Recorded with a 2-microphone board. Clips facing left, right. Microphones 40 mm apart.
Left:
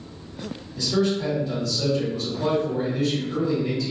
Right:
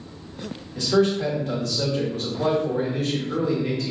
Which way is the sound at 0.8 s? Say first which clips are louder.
Right 3 dB; 65° right (ahead or behind).